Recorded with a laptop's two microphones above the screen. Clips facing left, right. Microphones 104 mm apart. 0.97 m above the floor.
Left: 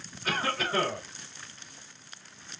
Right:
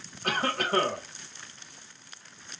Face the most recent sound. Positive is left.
turn(degrees=-55)  # may be behind; listen again after turning